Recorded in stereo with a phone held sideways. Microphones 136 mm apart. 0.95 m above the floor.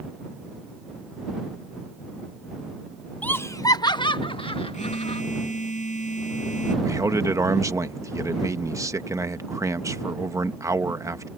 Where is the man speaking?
25° right (ahead or behind).